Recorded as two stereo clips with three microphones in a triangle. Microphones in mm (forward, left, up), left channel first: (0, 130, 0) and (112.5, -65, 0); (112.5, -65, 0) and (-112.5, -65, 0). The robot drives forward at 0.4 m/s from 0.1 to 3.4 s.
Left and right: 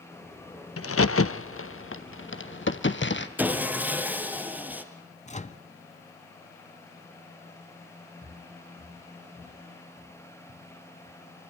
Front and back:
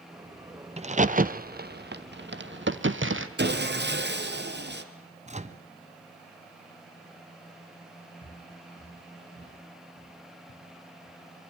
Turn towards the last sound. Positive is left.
turn(degrees=5)